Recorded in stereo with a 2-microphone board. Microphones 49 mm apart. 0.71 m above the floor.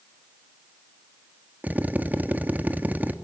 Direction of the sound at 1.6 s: 35° right (ahead or behind).